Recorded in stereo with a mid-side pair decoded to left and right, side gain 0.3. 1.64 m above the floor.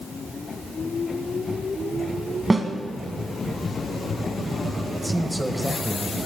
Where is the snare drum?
35° right, 1.9 m.